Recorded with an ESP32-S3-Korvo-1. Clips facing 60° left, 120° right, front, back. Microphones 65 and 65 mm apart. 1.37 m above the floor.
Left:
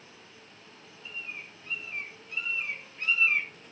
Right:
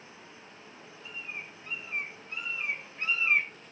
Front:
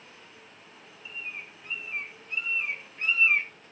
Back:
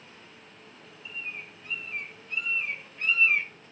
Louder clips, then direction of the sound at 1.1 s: Even, back 1 dB; 60° right.